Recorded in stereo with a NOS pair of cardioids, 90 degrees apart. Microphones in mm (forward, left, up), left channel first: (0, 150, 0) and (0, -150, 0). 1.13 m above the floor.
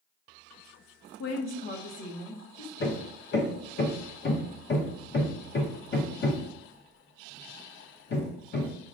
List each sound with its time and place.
1.2 s a woman speaking: 60° left, 0.6 m; by 2.7 s 15° left, 1.2 m
2.8 s hammering: 40° left, 0.8 m